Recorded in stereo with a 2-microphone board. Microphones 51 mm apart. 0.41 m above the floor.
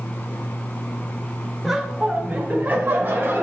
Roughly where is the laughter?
Centre.